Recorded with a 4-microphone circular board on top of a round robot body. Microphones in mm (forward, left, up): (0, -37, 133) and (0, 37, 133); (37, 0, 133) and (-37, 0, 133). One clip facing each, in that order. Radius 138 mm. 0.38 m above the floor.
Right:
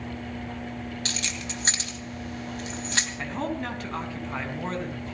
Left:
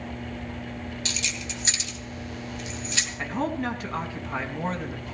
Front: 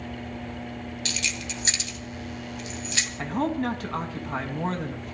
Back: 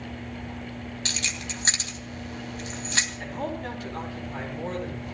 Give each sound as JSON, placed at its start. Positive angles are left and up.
{"t": 1.1, "sound": "keys jangling", "azimuth_deg": -130, "distance_m": 3.0}
{"t": 3.2, "sound": "a man speaking", "azimuth_deg": 5, "distance_m": 4.5}